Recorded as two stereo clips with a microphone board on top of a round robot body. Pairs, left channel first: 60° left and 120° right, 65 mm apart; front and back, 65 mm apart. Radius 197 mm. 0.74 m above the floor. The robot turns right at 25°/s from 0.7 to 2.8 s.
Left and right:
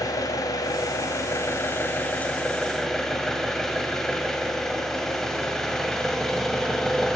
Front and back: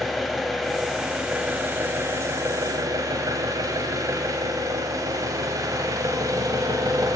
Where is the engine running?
90° left, 1.2 m; by 7.2 s 145° left, 1.2 m.